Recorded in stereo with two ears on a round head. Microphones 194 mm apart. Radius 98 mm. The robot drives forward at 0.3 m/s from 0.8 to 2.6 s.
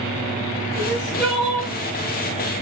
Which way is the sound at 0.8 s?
Centre (ahead or behind).